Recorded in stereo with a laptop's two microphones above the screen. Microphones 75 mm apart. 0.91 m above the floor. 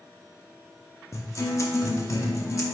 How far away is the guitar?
About 0.8 m.